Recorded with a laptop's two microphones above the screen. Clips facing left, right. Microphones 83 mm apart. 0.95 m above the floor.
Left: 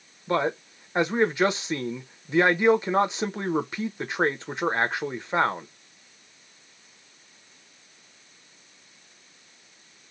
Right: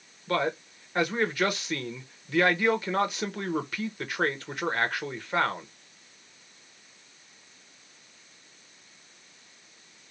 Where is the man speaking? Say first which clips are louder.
Left 3 dB; 25° left (ahead or behind), 0.7 m.